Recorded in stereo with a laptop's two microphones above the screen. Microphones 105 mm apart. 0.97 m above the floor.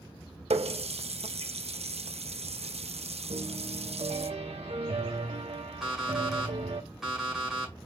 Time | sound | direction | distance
0.5 | a running tap | 85° right | 0.5 m
3.3 | a piano | 80° right | 0.9 m
5.8 | an alarm clock | 5° right (ahead or behind) | 2.0 m